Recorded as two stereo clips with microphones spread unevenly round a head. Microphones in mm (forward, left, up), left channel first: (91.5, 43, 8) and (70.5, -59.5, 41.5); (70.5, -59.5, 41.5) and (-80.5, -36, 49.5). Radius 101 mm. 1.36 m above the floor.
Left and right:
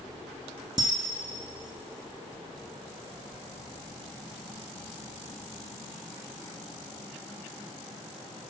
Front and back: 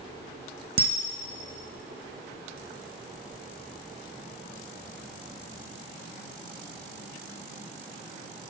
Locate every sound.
0.8 s a camera shutter: 170° right, 0.5 m